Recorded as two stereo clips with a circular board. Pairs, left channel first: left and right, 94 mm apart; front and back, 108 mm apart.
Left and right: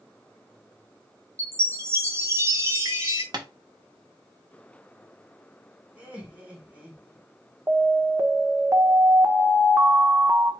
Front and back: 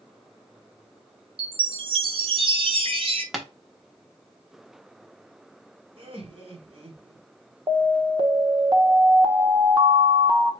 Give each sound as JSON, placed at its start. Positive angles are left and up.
{"t": 1.4, "sound": "a chime", "azimuth_deg": -150, "distance_m": 1.2}
{"t": 3.3, "sound": "tapping", "azimuth_deg": -95, "distance_m": 1.0}
{"t": 6.0, "sound": "laughter", "azimuth_deg": -165, "distance_m": 1.8}
{"t": 7.7, "sound": "an alarm", "azimuth_deg": -145, "distance_m": 0.8}